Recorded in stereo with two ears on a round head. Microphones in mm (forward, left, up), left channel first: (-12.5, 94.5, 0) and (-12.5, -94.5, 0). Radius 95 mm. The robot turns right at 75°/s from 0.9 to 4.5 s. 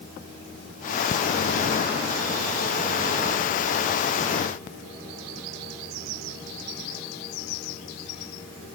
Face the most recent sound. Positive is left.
No sound to turn to.